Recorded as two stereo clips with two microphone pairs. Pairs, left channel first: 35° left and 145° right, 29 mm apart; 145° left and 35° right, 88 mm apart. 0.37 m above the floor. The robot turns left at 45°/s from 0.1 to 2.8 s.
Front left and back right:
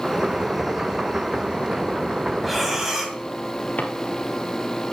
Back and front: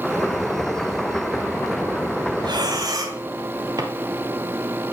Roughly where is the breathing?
Ahead right.